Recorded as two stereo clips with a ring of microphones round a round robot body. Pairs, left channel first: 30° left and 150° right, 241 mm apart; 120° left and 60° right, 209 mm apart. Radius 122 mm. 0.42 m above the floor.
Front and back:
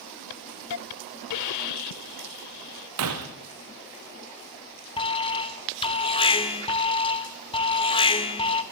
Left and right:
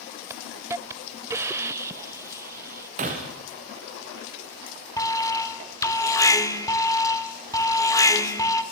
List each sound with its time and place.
0.3 s a hiss: 20° left, 0.6 m
3.0 s breaking glass: 125° right, 3.5 m
5.0 s an alarm: 65° left, 1.8 m